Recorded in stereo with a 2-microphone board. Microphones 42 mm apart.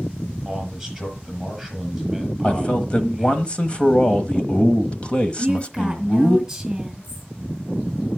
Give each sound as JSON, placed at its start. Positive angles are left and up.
{"t": 0.5, "sound": "a man speaking", "side_deg": 0, "distance_m": 6.5}
{"t": 2.4, "sound": "a man speaking", "side_deg": 25, "distance_m": 1.0}
{"t": 5.4, "sound": "a woman speaking", "side_deg": -10, "distance_m": 3.0}